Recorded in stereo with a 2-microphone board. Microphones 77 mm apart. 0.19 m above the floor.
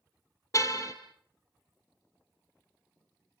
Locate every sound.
0.5 s a car horn: 45° left (ahead or behind), 2.5 m